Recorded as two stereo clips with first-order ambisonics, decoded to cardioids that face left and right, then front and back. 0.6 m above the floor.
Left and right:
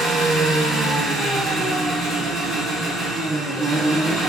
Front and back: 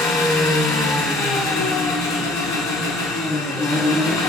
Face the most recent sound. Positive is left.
turn(degrees=20)